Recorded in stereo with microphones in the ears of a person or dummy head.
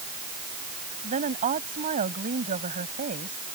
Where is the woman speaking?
35° right (ahead or behind).